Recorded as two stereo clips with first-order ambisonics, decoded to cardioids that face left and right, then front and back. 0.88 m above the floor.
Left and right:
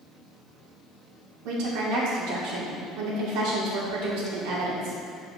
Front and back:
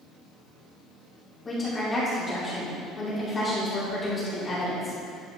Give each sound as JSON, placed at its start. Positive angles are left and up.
{"t": 1.4, "sound": "a woman speaking", "azimuth_deg": -75, "distance_m": 2.0}